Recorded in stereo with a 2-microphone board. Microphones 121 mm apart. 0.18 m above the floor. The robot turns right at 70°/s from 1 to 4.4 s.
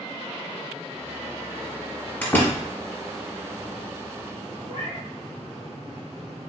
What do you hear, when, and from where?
2.2 s a door slam: 15° left (ahead or behind), 1.1 m; by 2.6 s 25° left (ahead or behind), 1.1 m
4.7 s a cat meowing: 45° right (ahead or behind), 1.5 m